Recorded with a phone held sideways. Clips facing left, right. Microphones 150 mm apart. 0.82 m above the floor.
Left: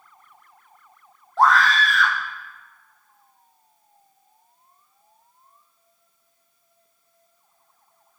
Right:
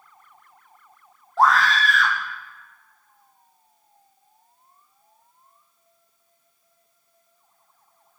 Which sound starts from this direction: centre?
A scream, at 1.4 s.